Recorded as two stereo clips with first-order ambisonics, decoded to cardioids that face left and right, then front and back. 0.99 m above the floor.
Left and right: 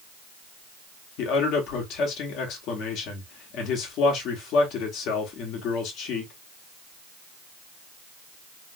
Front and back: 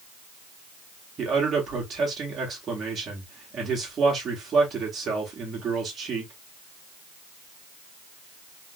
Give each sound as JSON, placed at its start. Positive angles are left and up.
{"t": 1.2, "sound": "a man speaking", "azimuth_deg": 120, "distance_m": 1.4}